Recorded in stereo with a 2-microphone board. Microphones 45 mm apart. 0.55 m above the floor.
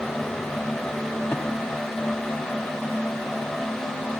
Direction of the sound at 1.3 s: 50° left (ahead or behind).